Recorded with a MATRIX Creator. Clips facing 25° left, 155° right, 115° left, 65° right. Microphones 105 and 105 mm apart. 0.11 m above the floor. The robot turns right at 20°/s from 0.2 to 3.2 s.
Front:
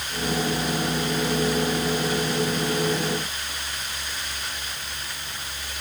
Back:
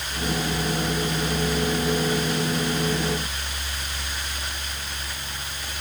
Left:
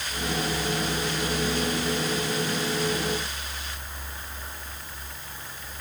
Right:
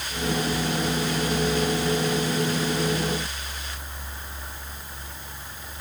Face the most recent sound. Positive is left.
No sound to turn to.